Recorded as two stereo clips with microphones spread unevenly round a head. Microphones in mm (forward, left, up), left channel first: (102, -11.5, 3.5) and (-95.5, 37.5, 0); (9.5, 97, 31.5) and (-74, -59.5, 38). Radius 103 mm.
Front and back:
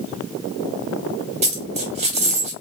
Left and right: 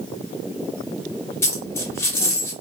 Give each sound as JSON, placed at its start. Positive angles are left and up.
{"t": 1.4, "sound": "a dropped coin", "azimuth_deg": 130, "distance_m": 0.8}